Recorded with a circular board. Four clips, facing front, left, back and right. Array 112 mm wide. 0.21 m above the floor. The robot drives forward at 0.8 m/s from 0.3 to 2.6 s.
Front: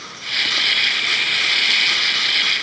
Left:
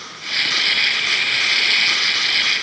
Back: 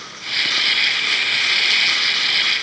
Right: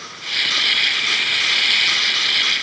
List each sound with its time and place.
Only background noise.